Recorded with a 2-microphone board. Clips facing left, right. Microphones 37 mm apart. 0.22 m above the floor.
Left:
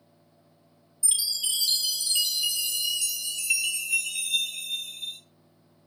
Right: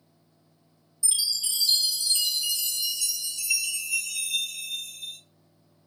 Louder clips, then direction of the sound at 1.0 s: Even; 35° left (ahead or behind).